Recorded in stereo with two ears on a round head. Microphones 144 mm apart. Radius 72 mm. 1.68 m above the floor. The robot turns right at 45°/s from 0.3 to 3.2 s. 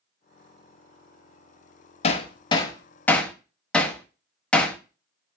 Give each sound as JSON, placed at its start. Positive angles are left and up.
{"t": 2.0, "sound": "hammering", "side_deg": 40, "distance_m": 0.7}